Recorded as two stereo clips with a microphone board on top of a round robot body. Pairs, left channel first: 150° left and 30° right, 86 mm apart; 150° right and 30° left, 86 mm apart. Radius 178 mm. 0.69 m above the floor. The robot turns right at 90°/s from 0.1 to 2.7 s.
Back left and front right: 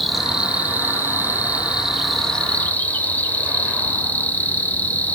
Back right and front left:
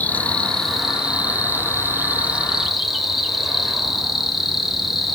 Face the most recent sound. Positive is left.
turn(degrees=115)